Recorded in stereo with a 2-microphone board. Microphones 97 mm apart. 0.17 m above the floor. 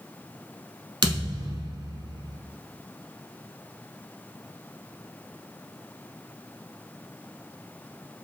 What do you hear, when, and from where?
1.0 s a thud: 55° right (ahead or behind), 0.6 m